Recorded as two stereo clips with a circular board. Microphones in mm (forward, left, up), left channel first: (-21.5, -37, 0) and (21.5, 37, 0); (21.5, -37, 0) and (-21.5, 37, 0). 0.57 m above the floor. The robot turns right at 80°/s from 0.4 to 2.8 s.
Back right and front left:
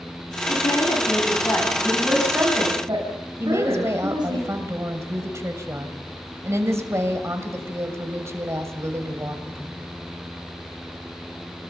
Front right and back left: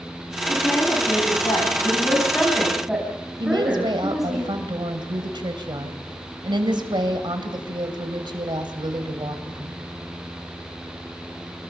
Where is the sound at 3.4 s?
110° left, 2.5 m.